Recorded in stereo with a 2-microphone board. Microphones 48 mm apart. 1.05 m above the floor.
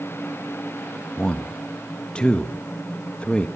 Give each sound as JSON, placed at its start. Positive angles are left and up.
{"t": 1.2, "sound": "a man speaking", "side_deg": 25, "distance_m": 1.2}